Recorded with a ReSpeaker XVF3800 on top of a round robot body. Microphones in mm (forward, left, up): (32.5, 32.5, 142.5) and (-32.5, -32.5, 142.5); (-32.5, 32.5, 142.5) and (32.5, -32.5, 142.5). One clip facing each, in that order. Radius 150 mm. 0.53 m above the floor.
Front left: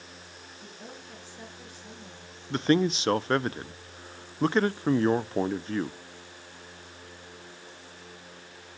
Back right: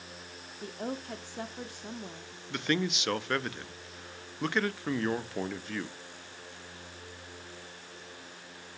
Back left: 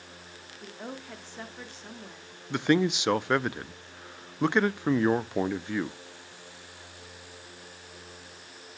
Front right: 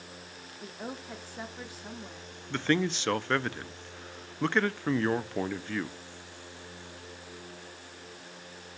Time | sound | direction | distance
0.6 | a woman speaking | 125° right | 1.3 m
2.5 | a man speaking | 70° left | 0.7 m